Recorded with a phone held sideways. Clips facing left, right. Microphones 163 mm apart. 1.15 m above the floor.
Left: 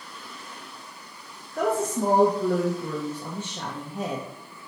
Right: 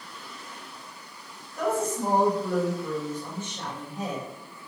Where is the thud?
I don't hear a thud.